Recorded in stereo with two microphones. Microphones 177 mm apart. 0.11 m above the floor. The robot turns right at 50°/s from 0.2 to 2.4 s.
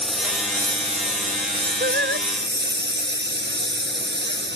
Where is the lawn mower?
Centre (ahead or behind); by 4.6 s 85° right.